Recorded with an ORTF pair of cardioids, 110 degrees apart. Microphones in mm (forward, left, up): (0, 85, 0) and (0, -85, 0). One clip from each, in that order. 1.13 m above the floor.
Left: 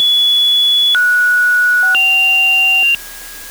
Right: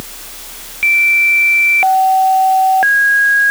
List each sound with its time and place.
Only background noise.